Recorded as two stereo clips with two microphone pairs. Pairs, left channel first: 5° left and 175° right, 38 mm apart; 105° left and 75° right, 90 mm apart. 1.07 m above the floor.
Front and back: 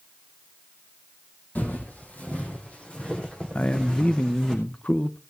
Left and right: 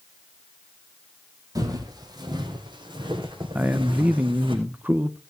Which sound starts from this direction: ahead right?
Footsteps, at 1.6 s.